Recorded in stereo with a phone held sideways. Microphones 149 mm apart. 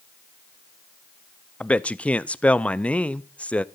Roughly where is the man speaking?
Centre.